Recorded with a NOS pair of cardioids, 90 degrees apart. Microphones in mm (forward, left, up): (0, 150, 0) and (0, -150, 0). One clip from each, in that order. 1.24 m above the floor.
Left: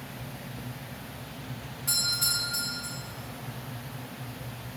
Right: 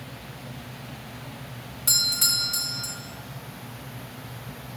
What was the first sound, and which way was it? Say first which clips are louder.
A doorbell: right 5 dB; 65° right.